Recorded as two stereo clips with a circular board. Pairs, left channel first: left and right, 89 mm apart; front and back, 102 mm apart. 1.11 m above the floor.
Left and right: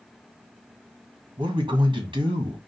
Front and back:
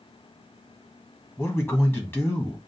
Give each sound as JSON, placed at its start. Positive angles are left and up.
{"t": 1.4, "sound": "a man speaking", "azimuth_deg": -65, "distance_m": 1.5}